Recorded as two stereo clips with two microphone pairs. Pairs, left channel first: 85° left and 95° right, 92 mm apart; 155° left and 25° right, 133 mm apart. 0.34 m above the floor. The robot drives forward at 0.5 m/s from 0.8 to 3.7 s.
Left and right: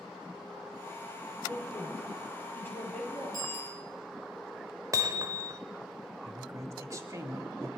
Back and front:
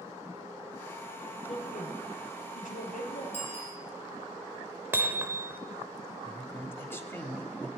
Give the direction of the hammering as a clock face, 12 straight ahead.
3 o'clock.